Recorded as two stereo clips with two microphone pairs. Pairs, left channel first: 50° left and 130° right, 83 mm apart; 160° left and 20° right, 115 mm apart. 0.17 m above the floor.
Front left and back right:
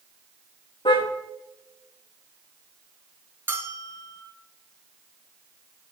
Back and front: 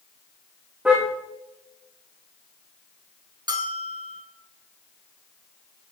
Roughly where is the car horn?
Ahead left.